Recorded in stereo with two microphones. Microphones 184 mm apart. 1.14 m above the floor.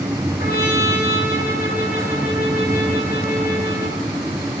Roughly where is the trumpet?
Left.